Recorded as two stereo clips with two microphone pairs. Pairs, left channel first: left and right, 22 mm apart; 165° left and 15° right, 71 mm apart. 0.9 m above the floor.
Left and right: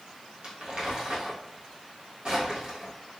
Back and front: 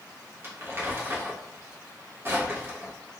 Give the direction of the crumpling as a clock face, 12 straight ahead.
2 o'clock.